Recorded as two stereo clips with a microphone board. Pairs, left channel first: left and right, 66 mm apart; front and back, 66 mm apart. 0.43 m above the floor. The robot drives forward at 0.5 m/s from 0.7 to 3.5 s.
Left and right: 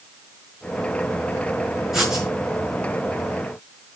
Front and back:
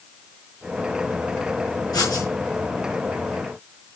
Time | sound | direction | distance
1.9 | writing | 5° right | 9 m